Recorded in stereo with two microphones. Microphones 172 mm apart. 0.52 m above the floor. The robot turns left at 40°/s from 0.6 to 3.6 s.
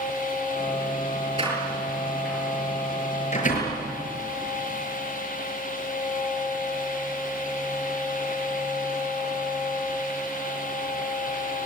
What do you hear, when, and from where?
1.4 s a door slam: 30° right (ahead or behind), 6.5 m; by 3.8 s 60° left (ahead or behind), 6.5 m